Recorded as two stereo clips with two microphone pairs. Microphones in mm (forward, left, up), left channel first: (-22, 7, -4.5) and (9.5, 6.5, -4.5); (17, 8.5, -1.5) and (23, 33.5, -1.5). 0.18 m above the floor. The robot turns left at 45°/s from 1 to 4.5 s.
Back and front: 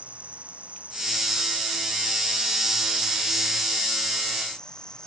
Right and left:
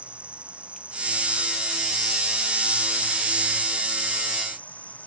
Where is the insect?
40° left; by 5.1 s 120° right.